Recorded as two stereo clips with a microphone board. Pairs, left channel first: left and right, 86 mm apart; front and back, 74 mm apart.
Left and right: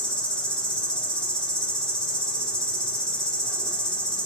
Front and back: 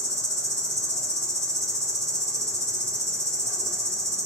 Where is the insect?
165° left, 1.0 m.